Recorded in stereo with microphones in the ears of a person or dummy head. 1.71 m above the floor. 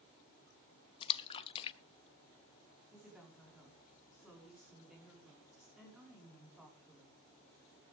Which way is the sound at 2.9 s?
5° right (ahead or behind).